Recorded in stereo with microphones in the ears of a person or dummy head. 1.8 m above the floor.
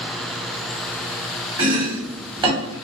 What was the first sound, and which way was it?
Chopping, 25° right (ahead or behind).